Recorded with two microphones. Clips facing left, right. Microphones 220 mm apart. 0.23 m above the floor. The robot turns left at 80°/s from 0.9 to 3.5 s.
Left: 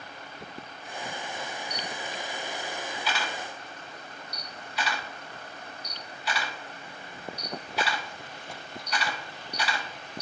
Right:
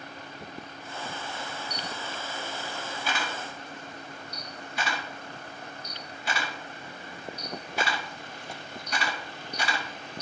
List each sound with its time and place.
1.7 s a camera shutter: 30° left (ahead or behind), 2 m; by 10.2 s 55° right (ahead or behind), 2 m